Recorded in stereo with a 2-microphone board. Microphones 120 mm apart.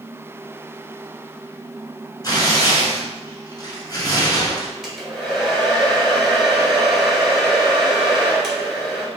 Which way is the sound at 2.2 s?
30° left (ahead or behind).